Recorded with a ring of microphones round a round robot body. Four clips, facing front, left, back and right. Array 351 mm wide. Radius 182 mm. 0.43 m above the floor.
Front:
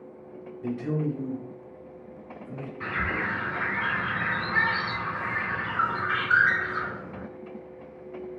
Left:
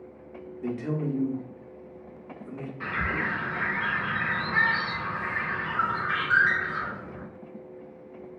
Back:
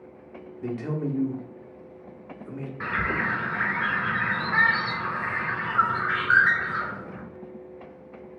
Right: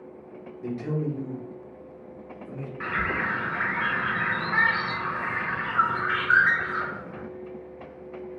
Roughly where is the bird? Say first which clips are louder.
Right 2 dB, back 3 dB; behind right.